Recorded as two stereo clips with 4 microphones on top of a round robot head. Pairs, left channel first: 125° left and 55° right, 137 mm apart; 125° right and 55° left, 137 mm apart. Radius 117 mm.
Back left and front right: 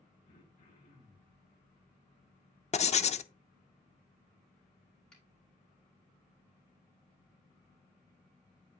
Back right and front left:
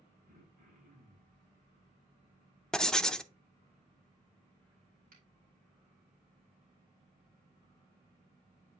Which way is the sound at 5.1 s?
45° left.